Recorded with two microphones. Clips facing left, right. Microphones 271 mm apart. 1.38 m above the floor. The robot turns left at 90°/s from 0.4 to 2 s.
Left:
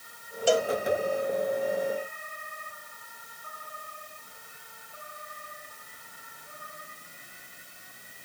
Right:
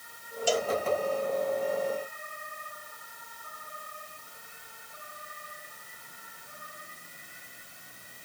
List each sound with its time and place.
0.5 s a cowbell: 65° left (ahead or behind); by 0.7 s 60° left (ahead or behind)